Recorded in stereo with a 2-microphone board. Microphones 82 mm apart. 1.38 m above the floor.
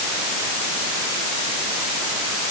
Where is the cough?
No cough in this recording.